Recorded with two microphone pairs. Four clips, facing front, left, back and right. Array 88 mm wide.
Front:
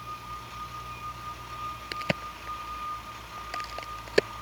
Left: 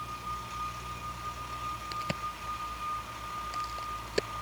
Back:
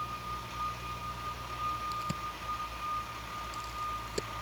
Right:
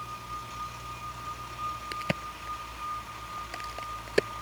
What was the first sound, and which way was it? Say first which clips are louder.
A crack: right 1 dB, front 4 dB; 15° right.